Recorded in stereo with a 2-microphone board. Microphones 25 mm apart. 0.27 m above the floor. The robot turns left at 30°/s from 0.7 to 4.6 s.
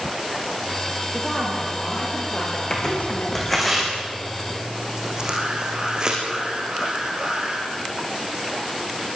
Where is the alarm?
35° right (ahead or behind), 7 m.